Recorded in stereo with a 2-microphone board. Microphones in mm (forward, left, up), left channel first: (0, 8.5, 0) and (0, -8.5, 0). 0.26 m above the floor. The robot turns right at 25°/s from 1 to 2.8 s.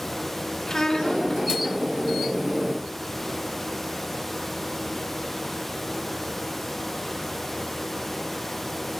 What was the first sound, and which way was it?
A child speaking, 30° left (ahead or behind).